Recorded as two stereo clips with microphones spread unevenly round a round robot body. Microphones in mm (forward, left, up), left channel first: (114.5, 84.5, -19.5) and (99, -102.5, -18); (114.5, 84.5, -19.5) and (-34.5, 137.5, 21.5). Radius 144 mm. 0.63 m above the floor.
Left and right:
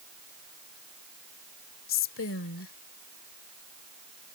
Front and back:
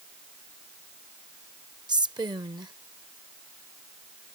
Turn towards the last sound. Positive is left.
turn(degrees=90)